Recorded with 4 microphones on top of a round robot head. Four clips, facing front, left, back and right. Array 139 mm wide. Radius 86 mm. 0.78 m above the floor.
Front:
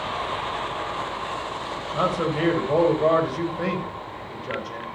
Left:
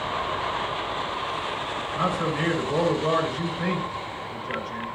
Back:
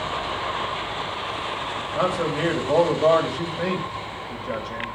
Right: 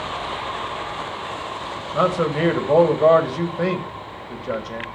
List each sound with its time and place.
1.9 s a man speaking: 90° right, 3.5 m